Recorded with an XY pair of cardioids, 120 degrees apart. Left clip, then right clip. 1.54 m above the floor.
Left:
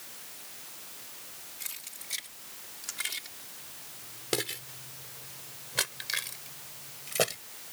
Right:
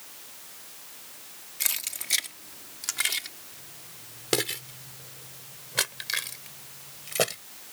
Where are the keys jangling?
70° right; by 7.4 s 10° right.